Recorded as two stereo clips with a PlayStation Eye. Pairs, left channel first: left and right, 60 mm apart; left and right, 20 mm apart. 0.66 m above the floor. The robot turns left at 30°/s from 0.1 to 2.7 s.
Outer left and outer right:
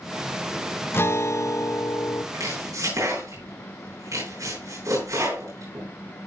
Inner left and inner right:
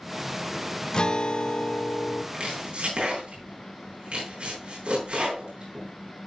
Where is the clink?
I don't hear a clink.